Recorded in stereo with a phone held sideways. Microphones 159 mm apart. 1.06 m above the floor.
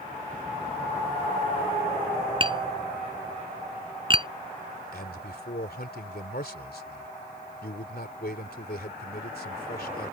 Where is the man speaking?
75° left (ahead or behind).